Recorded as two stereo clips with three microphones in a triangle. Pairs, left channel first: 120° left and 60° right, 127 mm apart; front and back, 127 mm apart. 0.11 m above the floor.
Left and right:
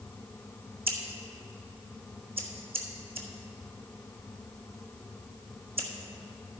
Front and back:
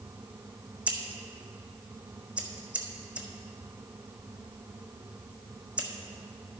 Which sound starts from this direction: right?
Scissors, at 0.9 s.